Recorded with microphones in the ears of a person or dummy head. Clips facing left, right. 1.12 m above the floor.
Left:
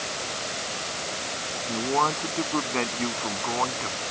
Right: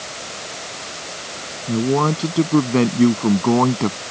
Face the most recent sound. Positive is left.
turn(degrees=-65)  # may be behind; listen again after turning